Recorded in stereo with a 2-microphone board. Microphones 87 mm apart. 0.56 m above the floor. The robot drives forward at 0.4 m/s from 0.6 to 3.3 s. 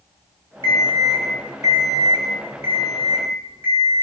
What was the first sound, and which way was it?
An alarm clock, 55° right (ahead or behind).